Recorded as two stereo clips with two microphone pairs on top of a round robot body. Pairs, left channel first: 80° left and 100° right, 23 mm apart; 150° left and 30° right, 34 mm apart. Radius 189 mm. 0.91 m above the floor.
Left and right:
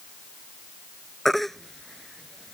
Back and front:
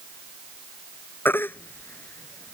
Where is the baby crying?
160° left.